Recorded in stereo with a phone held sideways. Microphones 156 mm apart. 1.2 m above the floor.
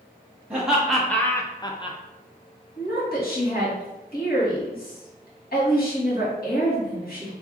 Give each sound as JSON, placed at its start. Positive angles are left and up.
{"t": 0.5, "sound": "laughter", "side_deg": -10, "distance_m": 0.7}
{"t": 2.8, "sound": "a woman speaking", "side_deg": 75, "distance_m": 1.5}